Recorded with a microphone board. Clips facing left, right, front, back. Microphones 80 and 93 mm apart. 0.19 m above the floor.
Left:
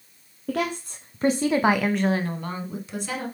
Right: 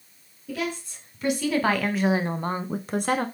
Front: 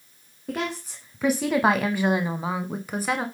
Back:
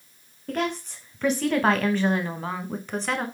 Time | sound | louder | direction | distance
0.5 | a woman speaking | left 4 dB, back 2 dB | 85° left | 1.8 m